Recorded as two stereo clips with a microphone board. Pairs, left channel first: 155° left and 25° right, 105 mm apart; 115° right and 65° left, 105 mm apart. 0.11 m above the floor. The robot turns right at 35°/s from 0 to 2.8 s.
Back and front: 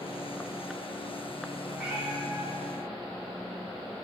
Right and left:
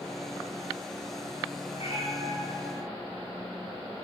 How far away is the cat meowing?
About 2.5 m.